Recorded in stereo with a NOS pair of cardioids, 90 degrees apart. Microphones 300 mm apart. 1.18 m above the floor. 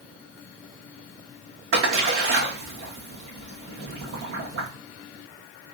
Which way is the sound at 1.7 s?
50° right.